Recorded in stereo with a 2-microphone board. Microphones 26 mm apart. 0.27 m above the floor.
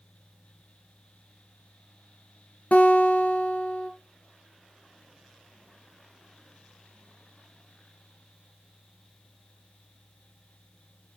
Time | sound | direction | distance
2.7 | a guitar | 70° left (ahead or behind) | 1.8 m